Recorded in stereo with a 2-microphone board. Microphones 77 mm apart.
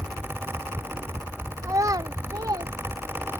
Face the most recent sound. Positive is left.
turn(degrees=-55)  # may be behind; listen again after turning